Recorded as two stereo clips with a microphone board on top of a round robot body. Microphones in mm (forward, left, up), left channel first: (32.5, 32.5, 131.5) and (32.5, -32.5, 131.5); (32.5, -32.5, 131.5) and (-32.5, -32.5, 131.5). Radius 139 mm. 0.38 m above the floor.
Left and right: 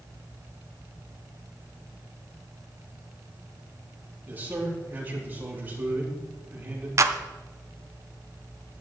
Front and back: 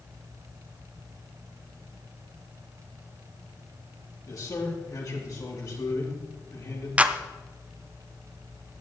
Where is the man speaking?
30° right, 5.5 m.